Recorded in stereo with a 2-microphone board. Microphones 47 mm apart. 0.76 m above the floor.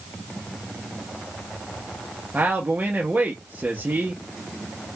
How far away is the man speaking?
About 0.8 m.